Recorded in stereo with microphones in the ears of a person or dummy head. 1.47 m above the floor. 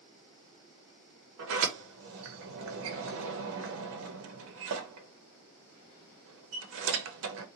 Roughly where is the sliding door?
Right.